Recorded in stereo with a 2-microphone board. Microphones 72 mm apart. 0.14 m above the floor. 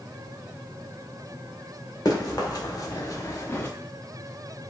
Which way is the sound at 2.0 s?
55° left (ahead or behind).